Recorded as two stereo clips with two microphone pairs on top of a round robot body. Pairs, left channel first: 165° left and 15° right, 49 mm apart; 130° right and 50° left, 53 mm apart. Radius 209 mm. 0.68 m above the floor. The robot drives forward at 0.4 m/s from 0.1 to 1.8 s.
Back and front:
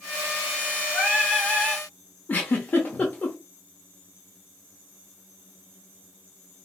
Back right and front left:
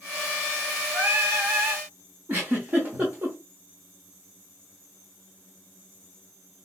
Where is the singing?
70° left, 1.3 m; by 1.9 s 85° left, 1.2 m.